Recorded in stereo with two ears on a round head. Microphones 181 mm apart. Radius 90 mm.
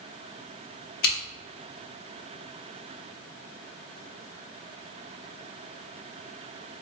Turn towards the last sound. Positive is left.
turn(degrees=50)  # may be behind; listen again after turning